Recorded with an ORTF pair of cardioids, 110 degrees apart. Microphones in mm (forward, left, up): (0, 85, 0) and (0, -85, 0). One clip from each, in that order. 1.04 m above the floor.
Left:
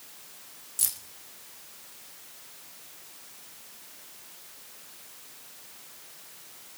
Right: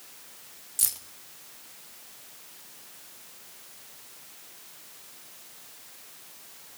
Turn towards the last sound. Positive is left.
turn(degrees=-10)